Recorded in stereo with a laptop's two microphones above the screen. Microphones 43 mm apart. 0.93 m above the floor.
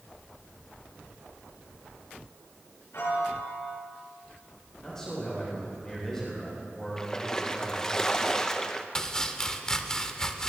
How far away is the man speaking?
About 3.5 m.